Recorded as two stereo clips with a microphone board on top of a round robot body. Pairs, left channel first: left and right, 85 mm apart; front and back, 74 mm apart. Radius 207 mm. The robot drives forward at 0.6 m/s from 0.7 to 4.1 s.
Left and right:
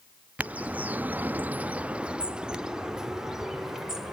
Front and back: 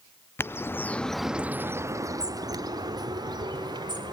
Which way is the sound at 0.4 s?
30° right.